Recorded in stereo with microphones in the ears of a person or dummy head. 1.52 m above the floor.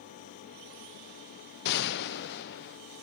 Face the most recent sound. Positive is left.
turn(degrees=60)  # may be behind; listen again after turning